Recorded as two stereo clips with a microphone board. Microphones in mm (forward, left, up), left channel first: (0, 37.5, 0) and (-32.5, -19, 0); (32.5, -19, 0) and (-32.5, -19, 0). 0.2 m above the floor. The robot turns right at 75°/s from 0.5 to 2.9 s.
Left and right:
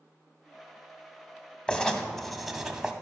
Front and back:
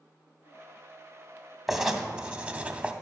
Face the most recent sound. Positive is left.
turn(degrees=-170)